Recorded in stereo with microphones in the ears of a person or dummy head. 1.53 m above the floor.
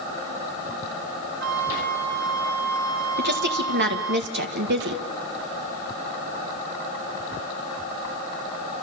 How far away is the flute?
About 4 m.